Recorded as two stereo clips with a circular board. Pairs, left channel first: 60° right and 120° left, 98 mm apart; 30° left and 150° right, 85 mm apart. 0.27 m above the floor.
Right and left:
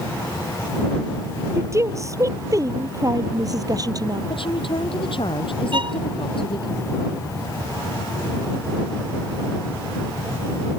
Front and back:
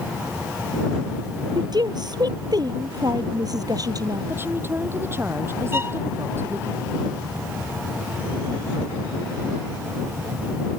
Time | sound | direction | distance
1.6 | a woman speaking | straight behind | ?
4.3 | a woman speaking | 85° right | ?
5.7 | a violin | 150° left | ?